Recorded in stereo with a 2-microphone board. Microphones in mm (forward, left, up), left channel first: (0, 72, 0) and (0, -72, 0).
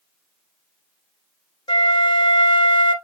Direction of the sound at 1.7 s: 35° left (ahead or behind).